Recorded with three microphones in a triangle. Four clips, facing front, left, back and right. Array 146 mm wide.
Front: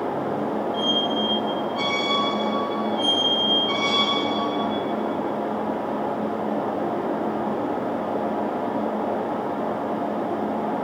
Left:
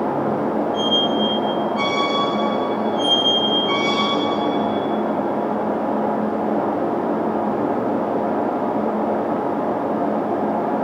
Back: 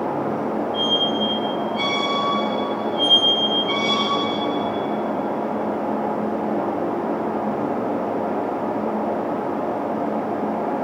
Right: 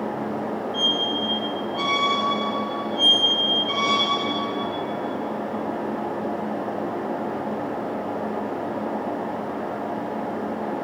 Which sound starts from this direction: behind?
A squeak, at 0.7 s.